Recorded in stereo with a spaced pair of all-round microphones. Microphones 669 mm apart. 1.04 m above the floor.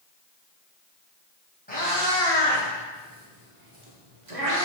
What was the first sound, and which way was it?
A cat meowing, 15° left (ahead or behind).